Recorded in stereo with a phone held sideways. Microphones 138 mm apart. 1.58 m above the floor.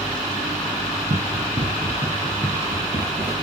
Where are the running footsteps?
50° right (ahead or behind), 4 m; by 3.3 s 25° right (ahead or behind), 6 m.